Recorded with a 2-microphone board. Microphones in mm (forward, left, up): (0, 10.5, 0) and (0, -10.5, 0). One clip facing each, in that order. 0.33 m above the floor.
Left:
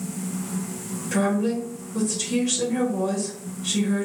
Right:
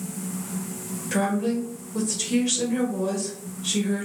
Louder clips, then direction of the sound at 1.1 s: Left 1 dB; 10° right (ahead or behind).